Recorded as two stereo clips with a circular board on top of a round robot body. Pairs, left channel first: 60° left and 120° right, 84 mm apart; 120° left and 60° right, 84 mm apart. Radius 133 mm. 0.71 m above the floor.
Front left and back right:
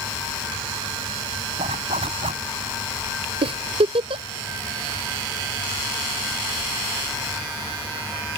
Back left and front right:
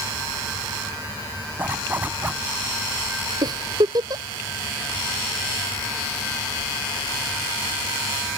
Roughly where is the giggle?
Right.